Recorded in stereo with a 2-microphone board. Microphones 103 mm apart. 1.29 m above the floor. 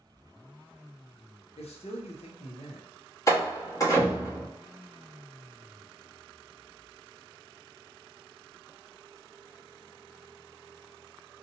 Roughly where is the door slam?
Left.